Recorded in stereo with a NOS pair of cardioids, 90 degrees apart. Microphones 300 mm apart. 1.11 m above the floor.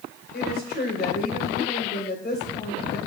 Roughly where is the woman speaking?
Ahead left.